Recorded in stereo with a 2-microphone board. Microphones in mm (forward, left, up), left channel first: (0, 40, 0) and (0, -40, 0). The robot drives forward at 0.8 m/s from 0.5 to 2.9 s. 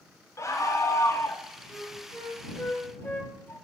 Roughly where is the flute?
Centre.